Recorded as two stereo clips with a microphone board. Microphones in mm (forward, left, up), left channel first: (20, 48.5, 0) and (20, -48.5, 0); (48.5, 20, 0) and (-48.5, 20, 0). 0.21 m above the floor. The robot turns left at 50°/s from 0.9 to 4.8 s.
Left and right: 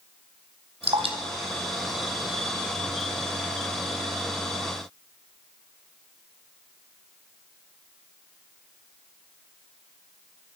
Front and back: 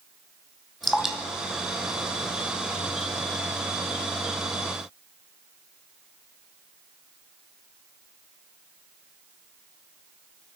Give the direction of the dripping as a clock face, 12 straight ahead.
3 o'clock.